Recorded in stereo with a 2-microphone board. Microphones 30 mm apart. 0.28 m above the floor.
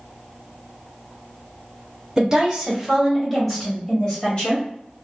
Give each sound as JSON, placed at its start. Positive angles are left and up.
{"t": 2.2, "sound": "a woman speaking", "side_deg": -25, "distance_m": 1.4}